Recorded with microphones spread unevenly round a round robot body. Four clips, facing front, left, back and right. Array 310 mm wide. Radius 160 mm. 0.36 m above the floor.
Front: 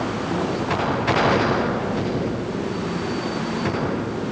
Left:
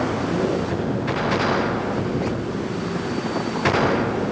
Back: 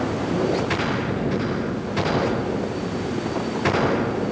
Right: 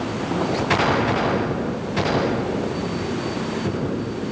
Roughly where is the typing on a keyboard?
No typing on a keyboard in this recording.